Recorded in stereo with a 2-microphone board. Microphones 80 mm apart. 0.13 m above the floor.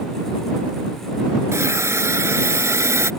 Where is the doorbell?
No doorbell in this recording.